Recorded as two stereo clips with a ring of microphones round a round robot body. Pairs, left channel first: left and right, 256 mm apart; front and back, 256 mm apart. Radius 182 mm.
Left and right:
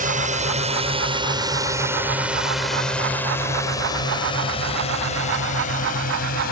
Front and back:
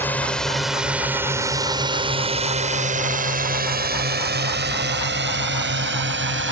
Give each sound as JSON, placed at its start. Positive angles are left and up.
{"t": 0.0, "sound": "a drone", "azimuth_deg": -75}